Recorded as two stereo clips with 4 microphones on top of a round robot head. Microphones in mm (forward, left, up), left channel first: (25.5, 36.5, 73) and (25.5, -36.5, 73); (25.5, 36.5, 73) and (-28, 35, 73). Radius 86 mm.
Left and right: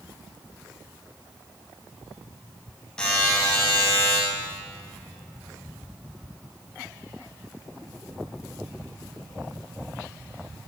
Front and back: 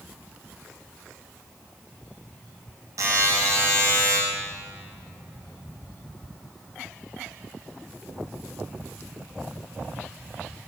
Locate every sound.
3.0 s a buzzer: 170° left, 9 m